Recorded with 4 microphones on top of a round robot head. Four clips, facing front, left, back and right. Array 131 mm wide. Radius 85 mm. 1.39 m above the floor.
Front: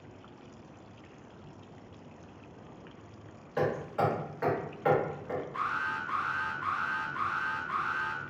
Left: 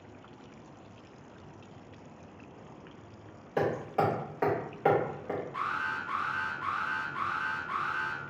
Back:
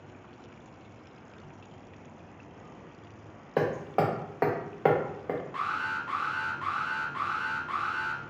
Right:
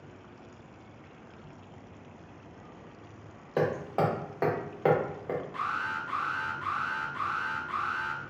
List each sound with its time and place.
3.6 s hammering: 165° right, 0.7 m
5.5 s an alarm: 170° right, 0.8 m